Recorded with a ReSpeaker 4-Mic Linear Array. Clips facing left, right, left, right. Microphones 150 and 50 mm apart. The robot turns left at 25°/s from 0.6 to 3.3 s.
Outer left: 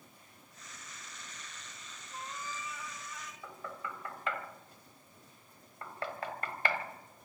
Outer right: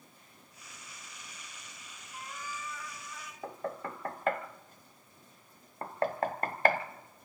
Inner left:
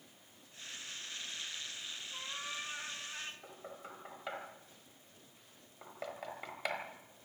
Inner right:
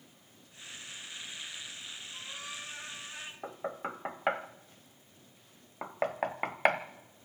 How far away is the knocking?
About 1.2 m.